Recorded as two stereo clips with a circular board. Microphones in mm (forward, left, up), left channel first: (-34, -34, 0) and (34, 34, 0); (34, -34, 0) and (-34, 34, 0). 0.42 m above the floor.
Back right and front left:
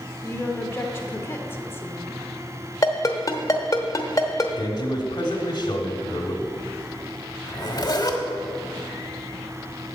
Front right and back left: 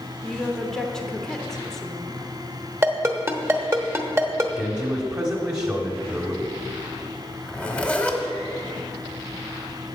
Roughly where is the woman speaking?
Behind right.